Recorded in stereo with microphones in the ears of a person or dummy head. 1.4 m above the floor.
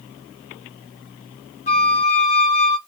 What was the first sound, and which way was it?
A flute, 35° left (ahead or behind).